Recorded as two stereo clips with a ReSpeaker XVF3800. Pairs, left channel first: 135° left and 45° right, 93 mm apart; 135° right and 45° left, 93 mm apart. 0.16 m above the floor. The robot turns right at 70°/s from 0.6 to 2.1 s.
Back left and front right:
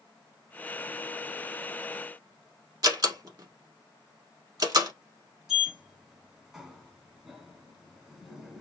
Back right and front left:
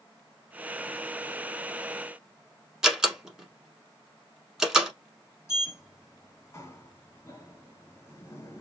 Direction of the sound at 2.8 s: 35° right.